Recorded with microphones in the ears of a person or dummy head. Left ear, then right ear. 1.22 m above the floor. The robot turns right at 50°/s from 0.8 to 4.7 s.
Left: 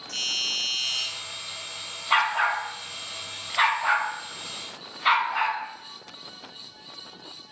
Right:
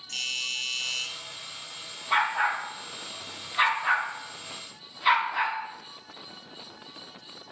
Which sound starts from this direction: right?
A doorbell, at 0.1 s.